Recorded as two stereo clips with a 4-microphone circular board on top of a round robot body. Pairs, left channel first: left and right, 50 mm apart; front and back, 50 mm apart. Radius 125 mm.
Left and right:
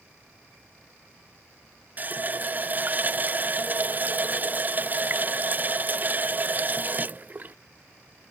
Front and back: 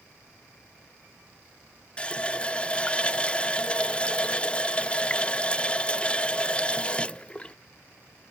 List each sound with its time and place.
2.0 s a running tap: 60° right, 0.5 m